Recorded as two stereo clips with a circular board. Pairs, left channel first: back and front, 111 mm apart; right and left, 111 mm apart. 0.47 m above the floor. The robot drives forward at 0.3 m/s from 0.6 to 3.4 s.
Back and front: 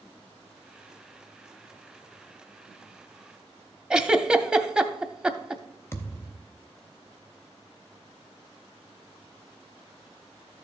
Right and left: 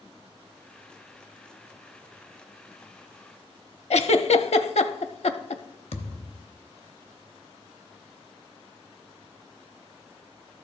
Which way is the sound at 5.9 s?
115° right.